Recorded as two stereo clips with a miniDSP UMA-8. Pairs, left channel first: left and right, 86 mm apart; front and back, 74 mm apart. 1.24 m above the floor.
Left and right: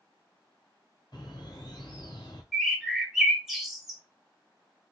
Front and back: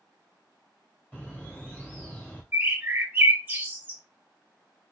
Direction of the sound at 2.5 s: 170° right.